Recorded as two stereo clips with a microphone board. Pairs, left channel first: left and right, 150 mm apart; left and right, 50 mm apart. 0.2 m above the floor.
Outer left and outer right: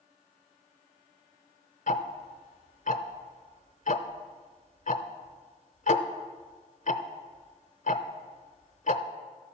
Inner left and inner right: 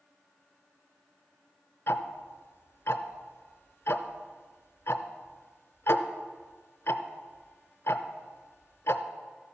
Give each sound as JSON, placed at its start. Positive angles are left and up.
{"t": 1.9, "sound": "ticking", "side_deg": 60, "distance_m": 0.7}